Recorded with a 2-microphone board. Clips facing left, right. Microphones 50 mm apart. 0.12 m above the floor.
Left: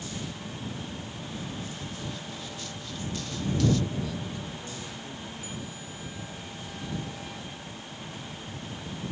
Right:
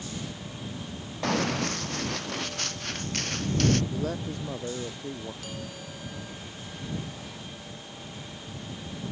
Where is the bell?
75° right (ahead or behind).